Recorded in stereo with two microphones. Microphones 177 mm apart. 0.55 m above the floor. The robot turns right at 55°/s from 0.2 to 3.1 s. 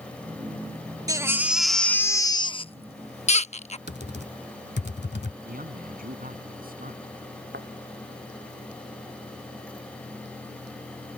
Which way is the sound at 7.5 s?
75° right (ahead or behind).